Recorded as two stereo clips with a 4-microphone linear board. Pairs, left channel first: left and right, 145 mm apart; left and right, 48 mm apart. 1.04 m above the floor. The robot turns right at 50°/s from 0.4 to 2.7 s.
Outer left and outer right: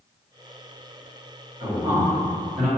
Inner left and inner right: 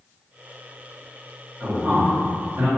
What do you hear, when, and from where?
1.6 s a man speaking: 40° right (ahead or behind), 1.6 m; by 2.7 s 80° right, 1.6 m